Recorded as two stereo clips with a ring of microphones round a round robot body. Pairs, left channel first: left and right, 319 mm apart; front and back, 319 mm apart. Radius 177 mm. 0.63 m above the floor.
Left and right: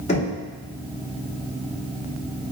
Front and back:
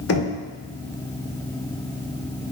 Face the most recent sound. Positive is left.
turn(degrees=25)